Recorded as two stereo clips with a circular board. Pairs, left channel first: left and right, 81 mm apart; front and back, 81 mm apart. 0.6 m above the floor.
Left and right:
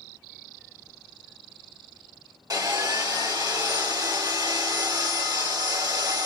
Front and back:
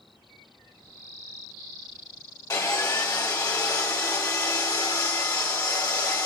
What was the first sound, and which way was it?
Sawing, 50° right.